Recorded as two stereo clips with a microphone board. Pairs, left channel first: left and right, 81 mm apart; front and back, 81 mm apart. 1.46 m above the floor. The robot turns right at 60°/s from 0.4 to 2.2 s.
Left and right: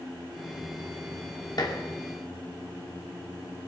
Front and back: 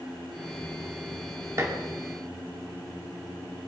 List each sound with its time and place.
1.6 s dishes clattering: 125° left, 2 m; by 1.8 s 135° left, 2 m